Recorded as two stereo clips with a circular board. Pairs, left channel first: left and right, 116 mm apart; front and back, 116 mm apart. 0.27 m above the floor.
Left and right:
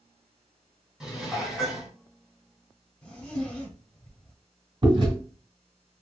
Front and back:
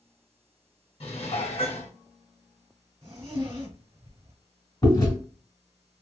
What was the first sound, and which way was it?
Dishes clattering, 5° right.